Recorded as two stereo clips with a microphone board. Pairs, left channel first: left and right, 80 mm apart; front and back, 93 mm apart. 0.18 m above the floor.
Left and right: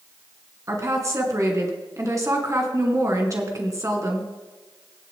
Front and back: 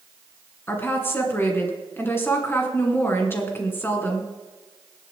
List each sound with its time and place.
0.7 s a woman speaking: 60° right, 2.5 m